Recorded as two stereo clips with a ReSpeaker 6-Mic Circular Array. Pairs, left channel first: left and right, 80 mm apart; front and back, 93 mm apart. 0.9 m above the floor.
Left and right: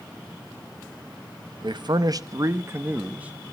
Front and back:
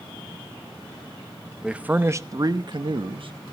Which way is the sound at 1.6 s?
100° right.